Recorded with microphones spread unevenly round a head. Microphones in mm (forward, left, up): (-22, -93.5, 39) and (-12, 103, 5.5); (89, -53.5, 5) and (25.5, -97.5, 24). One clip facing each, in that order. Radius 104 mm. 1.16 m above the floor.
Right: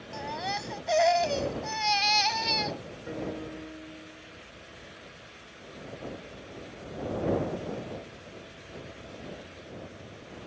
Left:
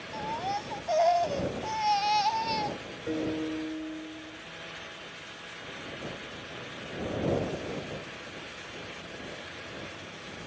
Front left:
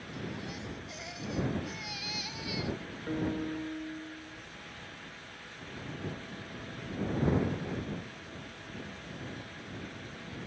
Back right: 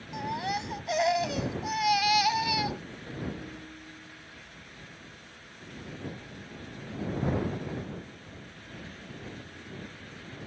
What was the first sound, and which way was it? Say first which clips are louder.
A baby crying: left 1 dB, back right 10 dB; 155° right.